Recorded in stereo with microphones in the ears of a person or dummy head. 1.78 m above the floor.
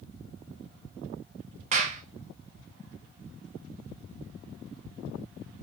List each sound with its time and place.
1.7 s a clap: 40° right (ahead or behind), 0.6 m